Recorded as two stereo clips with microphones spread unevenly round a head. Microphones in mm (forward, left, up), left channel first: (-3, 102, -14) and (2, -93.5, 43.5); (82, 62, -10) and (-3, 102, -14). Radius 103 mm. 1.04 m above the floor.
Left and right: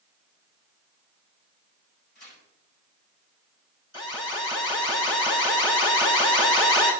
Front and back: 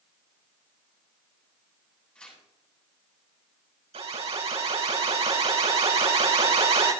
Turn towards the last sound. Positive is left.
turn(degrees=160)